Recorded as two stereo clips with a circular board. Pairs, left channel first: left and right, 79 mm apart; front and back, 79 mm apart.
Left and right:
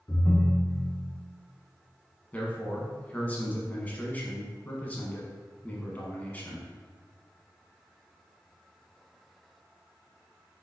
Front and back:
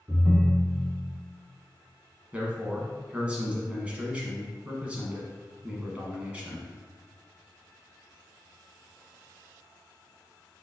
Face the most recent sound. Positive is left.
turn(degrees=130)